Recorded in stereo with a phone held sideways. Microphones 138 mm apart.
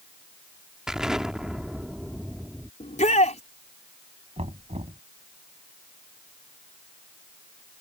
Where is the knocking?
50° right (ahead or behind).